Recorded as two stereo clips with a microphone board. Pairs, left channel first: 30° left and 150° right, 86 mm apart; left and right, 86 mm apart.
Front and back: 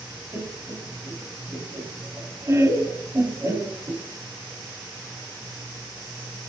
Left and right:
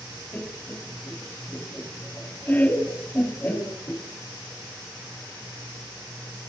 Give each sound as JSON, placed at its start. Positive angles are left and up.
{"t": 0.3, "sound": "laughter", "azimuth_deg": 155, "distance_m": 1.9}